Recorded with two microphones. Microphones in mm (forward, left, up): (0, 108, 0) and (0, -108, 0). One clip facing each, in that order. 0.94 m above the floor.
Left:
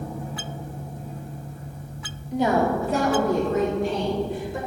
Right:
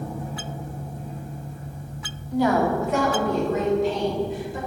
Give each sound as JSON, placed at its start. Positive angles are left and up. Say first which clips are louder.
{"t": 2.3, "sound": "a woman speaking", "louder": "right 1 dB", "side_deg": 15, "distance_m": 1.5}